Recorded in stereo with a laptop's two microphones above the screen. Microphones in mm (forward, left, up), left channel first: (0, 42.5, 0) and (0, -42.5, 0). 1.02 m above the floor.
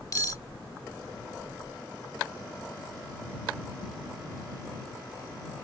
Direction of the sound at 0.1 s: 45° left (ahead or behind).